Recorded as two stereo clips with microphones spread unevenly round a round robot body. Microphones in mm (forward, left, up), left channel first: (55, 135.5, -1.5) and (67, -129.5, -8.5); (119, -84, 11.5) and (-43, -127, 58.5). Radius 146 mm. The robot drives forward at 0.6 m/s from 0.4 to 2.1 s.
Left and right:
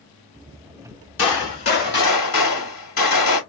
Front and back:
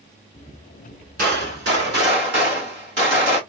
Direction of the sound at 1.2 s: 140° left.